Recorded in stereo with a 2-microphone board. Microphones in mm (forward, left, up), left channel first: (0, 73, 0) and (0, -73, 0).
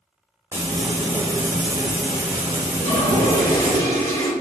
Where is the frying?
20° right (ahead or behind), 1.3 m.